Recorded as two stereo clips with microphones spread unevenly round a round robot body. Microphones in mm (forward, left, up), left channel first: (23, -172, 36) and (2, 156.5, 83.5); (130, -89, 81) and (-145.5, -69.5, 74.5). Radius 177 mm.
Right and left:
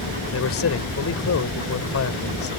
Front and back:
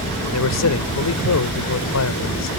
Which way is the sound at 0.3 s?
35° right.